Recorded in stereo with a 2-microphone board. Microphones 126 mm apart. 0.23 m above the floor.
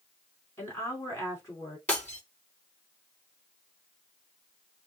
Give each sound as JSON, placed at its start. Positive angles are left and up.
{"t": 0.6, "sound": "a woman speaking", "side_deg": 20, "distance_m": 3.0}
{"t": 1.9, "sound": "breaking glass", "side_deg": 15, "distance_m": 4.0}